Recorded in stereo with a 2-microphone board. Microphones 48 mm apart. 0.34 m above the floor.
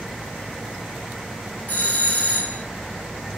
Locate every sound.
1.7 s a doorbell: 40° left (ahead or behind), 2.5 m